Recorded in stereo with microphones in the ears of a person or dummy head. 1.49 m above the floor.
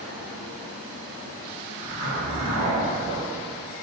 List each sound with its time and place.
1.8 s a zipper: 70° right (ahead or behind), 1.3 m